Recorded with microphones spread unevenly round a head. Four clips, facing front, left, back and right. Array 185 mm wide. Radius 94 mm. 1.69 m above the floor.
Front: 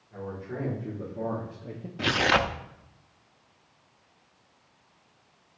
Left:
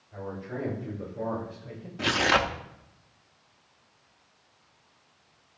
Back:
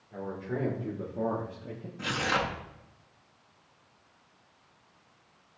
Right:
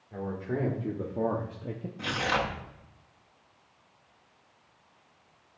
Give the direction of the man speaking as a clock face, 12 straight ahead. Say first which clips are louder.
Right 3 dB, back 1 dB; 4 o'clock.